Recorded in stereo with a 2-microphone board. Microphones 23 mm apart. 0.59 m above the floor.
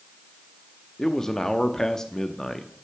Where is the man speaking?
15° left (ahead or behind), 0.5 m.